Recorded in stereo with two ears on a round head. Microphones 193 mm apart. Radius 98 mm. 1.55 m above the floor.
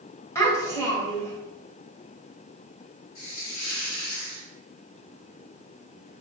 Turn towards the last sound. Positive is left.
turn(degrees=65)  # may be behind; listen again after turning